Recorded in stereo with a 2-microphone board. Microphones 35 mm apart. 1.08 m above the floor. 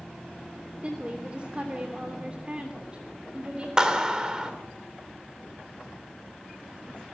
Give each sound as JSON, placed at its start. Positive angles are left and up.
{"t": 0.8, "sound": "a woman speaking", "side_deg": -35, "distance_m": 3.0}
{"t": 3.8, "sound": "a clap", "side_deg": -20, "distance_m": 3.0}